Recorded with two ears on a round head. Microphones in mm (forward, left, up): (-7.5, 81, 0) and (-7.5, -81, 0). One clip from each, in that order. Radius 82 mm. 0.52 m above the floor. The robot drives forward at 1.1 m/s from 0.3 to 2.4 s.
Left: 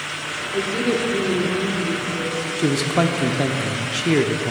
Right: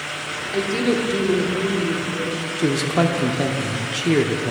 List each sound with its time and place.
0.5 s a woman speaking: 30° right (ahead or behind), 1.3 m; by 2.5 s 20° right (ahead or behind), 1.9 m
2.6 s a man speaking: 5° left (ahead or behind), 0.7 m